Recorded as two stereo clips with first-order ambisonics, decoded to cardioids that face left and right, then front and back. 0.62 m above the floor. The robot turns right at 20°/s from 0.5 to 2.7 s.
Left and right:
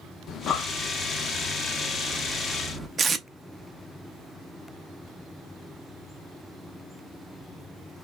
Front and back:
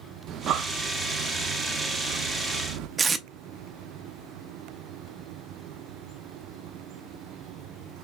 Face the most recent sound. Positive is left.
turn(degrees=-135)